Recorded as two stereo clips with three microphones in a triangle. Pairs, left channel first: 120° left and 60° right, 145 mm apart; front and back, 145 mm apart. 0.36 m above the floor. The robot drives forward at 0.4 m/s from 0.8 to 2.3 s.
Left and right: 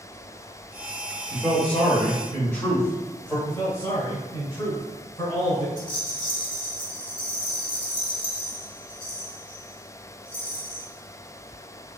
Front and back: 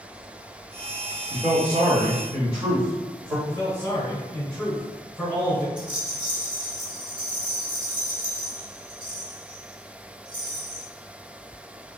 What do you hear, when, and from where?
1.3 s a man speaking: 160° right, 1.2 m; by 3.4 s 170° right, 1.4 m
3.5 s a man speaking: 75° left, 1.1 m
5.8 s a rattle: 130° left, 1.2 m